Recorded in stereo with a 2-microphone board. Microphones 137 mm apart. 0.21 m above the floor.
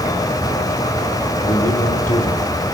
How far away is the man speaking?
About 7 m.